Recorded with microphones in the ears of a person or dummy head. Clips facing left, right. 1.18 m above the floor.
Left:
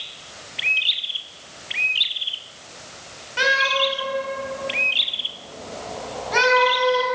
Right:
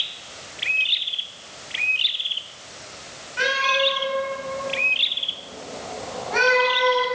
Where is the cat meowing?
55° left (ahead or behind), 3 m.